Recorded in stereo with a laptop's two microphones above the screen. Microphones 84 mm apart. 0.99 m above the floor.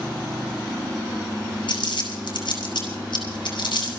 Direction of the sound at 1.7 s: 80° left.